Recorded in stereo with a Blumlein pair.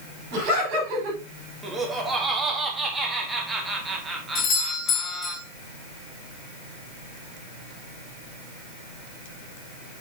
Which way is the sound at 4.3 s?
30° left.